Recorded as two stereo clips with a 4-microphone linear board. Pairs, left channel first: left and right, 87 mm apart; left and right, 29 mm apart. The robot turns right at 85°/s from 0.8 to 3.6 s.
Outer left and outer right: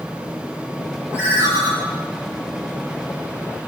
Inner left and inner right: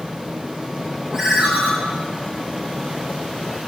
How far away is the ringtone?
About 4.5 m.